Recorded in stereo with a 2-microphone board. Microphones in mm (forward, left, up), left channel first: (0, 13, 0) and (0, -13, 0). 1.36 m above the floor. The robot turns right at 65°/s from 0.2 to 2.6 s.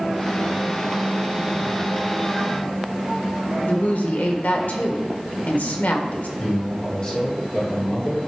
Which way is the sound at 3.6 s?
75° left (ahead or behind).